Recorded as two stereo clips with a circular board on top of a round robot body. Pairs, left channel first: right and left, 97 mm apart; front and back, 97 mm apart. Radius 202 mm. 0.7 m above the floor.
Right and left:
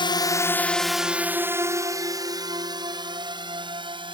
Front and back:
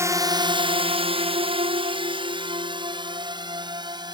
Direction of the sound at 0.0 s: 120° right.